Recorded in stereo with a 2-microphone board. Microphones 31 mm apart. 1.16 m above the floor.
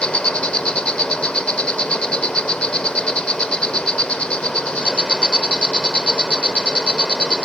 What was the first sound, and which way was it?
An insect, 40° left (ahead or behind).